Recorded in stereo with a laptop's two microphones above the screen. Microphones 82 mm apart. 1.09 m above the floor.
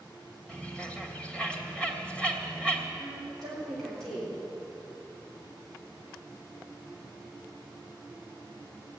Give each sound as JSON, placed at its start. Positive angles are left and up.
{"t": 0.5, "sound": "a bird", "side_deg": 15, "distance_m": 2.0}
{"t": 3.0, "sound": "a woman speaking", "side_deg": 5, "distance_m": 3.5}